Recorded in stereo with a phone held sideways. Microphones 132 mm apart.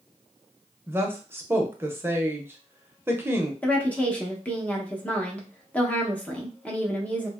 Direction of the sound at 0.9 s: 20° right (ahead or behind).